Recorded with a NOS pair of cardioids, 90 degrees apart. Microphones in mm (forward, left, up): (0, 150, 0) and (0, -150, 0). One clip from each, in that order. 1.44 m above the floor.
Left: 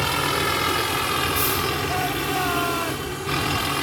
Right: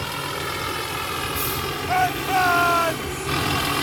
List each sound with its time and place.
0.0 s a vehicle: 35° left; by 3.8 s 15° right
1.9 s a shout: 55° right